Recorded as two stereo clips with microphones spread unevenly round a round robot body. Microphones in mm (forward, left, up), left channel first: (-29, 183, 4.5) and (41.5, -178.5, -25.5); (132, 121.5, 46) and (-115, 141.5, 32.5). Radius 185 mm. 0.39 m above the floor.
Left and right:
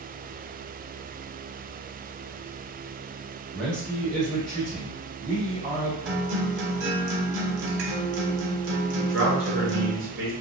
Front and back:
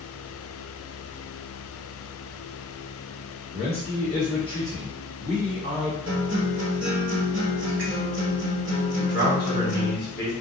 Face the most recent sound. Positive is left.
turn(degrees=-40)